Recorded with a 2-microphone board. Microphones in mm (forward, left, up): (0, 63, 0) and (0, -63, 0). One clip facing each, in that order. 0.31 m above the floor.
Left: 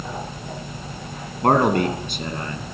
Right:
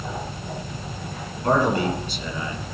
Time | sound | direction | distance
1.4 | a man speaking | 65° left (ahead or behind) | 2.5 m